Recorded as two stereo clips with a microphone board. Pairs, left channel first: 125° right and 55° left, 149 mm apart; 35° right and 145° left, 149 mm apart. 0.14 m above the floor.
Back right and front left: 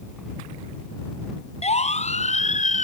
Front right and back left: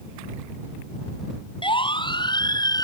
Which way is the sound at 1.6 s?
85° right.